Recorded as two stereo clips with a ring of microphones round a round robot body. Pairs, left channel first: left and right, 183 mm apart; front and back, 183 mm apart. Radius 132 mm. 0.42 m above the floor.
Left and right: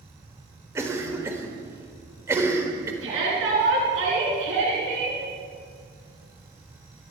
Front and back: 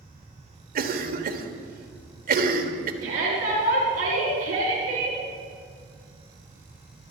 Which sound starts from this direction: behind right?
A shout, at 3.0 s.